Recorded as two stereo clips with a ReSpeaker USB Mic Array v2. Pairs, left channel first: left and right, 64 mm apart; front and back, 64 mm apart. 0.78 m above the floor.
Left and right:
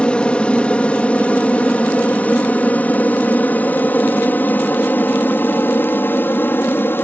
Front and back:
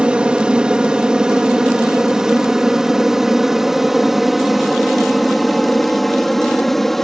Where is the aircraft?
130° left; by 7.0 s 85° left.